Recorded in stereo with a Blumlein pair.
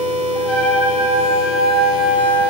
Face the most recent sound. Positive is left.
turn(degrees=25)